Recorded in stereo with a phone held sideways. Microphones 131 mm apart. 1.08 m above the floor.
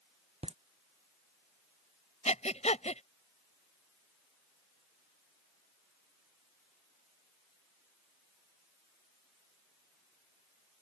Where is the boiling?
I don't hear boiling.